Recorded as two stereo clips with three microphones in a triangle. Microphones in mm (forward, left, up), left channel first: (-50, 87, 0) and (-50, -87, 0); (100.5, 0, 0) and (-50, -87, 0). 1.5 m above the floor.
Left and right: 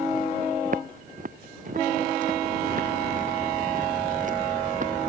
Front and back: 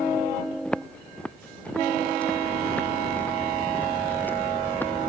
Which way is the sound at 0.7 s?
55° right.